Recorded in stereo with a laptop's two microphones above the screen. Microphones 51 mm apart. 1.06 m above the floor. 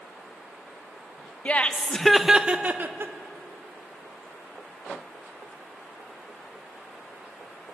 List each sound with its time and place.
1.4 s laughter: 30° left (ahead or behind), 0.8 m; by 3.1 s 50° right (ahead or behind), 0.7 m